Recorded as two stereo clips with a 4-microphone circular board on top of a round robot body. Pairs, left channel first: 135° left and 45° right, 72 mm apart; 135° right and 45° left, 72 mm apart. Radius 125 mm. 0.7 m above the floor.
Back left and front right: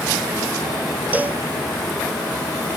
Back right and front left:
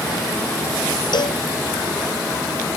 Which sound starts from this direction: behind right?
A cowbell, at 1.1 s.